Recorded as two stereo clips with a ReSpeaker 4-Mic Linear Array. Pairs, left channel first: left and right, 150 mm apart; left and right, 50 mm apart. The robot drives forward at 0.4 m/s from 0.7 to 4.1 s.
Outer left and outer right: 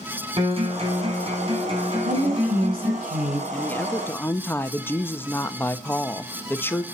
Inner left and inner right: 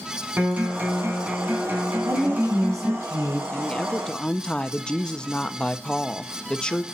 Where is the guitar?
40° right (ahead or behind), 4 m; by 3.0 s 35° right (ahead or behind), 5 m.